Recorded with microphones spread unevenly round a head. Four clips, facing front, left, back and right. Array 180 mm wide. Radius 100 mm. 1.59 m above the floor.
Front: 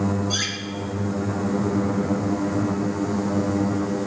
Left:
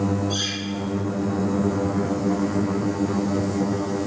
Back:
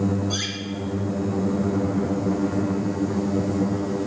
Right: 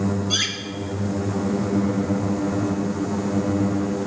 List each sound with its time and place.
0.3 s cutlery clinking: 65° right, 1.0 m